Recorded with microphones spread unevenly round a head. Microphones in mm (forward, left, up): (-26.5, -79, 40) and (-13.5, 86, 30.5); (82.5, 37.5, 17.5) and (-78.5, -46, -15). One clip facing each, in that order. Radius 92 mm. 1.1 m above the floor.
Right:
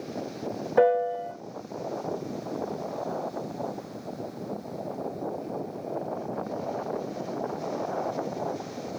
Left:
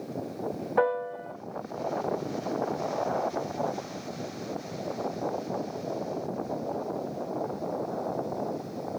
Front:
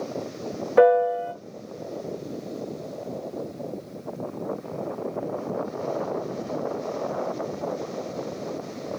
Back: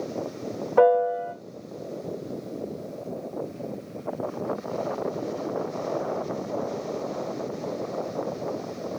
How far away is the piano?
About 1.7 m.